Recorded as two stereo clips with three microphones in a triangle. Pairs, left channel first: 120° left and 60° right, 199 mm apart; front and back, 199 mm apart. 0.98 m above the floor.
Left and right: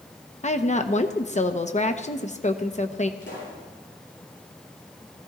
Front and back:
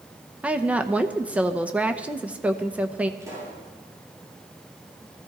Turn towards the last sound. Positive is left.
turn(degrees=105)